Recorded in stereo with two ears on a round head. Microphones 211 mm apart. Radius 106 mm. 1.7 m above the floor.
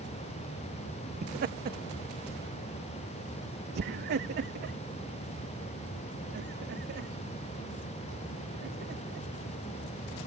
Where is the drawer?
No drawer in this recording.